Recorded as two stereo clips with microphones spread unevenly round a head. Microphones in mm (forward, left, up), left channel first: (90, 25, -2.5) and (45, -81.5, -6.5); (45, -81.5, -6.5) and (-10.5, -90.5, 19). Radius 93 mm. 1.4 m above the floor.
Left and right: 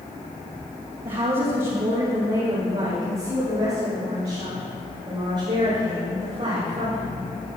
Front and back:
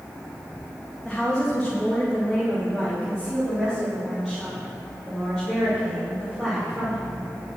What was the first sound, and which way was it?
A woman speaking, 75° right.